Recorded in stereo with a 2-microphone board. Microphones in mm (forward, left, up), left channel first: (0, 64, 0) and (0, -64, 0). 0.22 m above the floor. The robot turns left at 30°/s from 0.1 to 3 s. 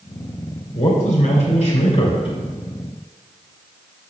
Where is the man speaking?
95° left, 3 m; by 2.4 s 45° left, 3 m.